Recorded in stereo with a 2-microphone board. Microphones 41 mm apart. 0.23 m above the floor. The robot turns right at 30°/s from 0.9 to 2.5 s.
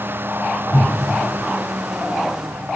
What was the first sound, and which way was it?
A whoosh, 80° left.